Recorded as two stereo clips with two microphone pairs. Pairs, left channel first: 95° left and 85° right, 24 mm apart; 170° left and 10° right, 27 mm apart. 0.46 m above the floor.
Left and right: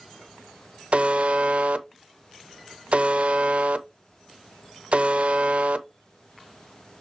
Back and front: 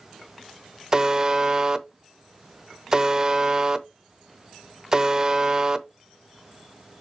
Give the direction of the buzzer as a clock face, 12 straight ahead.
2 o'clock.